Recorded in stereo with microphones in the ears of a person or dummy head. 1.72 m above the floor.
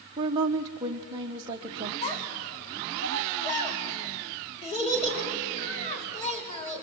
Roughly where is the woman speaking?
Right.